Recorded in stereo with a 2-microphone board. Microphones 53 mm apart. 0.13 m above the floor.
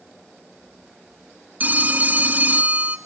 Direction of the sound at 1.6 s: 35° right (ahead or behind).